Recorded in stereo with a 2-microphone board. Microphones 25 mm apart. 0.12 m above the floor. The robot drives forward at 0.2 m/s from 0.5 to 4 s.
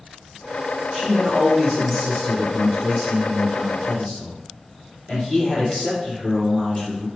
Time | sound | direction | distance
0.9 | a man speaking | 45° left (ahead or behind) | 2.0 m